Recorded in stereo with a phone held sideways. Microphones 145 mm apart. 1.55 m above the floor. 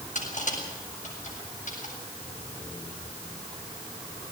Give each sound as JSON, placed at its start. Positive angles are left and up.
{"t": 0.1, "sound": "crushing", "side_deg": 60, "distance_m": 7.5}